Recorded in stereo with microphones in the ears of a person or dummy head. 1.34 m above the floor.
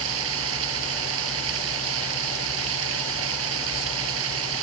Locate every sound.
0.0 s running water: 75° right (ahead or behind)